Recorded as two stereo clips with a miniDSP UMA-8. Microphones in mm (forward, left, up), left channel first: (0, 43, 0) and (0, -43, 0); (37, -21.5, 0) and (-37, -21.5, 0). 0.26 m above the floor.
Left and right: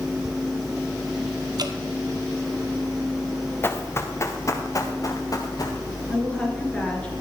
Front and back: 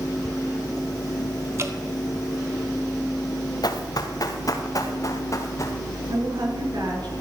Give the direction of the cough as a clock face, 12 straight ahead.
I don't hear a cough.